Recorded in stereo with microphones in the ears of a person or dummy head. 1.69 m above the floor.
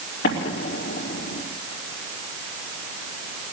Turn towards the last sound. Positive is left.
turn(degrees=55)  # may be behind; listen again after turning